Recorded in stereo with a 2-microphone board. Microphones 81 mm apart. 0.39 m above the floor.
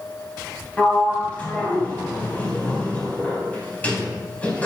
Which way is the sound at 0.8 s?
20° left (ahead or behind).